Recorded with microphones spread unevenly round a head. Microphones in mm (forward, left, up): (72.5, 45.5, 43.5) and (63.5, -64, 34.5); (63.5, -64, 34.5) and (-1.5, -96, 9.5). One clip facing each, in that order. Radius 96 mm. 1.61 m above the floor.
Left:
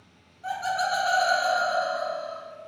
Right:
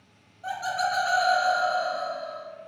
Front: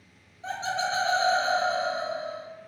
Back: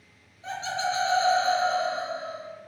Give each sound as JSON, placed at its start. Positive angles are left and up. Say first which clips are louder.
{"t": 0.4, "sound": "laughter", "louder": "left 1 dB, even", "azimuth_deg": -20, "distance_m": 1.0}